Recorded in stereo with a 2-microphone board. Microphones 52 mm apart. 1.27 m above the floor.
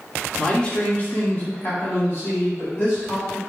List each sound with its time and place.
0.4 s a man speaking: 15° left (ahead or behind), 0.6 m; by 3.4 s 40° left (ahead or behind), 1.6 m